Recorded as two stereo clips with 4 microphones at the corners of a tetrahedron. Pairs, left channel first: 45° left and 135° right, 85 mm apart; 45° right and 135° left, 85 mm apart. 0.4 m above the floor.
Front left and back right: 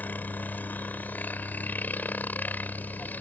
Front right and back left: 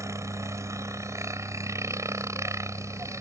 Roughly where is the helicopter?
Left.